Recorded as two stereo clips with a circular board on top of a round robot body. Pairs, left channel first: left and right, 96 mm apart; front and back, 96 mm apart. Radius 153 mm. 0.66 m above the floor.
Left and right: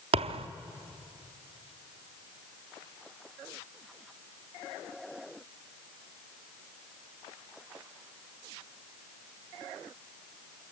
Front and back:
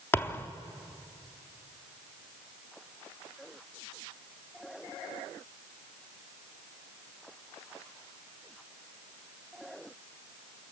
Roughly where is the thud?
Right.